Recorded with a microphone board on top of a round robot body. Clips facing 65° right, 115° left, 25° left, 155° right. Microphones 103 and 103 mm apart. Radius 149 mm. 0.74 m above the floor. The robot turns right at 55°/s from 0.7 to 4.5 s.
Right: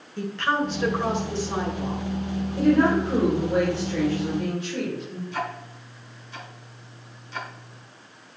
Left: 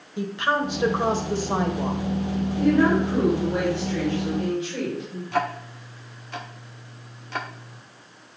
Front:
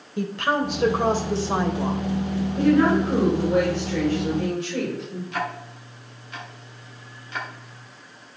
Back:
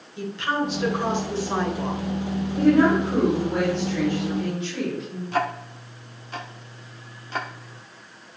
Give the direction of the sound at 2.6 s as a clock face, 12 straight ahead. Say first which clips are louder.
Even, back 1 dB; 3 o'clock.